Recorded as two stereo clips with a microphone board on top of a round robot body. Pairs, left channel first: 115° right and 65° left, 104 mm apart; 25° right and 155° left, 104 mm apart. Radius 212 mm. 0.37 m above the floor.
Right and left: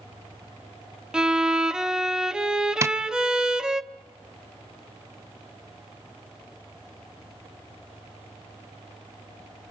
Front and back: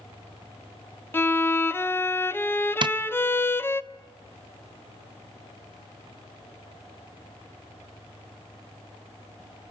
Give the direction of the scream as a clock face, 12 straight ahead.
I don't hear a scream.